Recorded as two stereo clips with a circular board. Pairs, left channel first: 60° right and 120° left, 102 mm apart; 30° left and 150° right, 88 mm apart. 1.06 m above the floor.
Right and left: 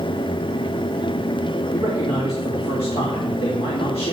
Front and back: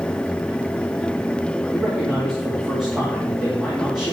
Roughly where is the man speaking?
Ahead right.